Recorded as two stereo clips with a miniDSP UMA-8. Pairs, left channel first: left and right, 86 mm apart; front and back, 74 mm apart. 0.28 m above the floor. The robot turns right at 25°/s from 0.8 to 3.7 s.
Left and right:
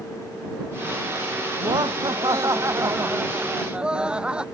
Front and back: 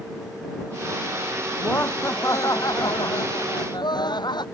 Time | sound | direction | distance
1.6 | laughter | 65° right | ?